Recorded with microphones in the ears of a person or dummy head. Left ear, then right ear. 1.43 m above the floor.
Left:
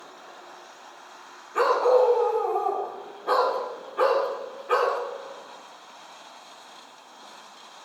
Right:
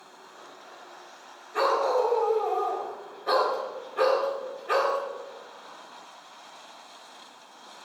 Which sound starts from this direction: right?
A dog barking, at 1.5 s.